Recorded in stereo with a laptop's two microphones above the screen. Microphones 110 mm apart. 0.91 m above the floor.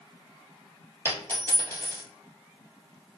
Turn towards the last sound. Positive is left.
turn(degrees=20)  # may be behind; listen again after turning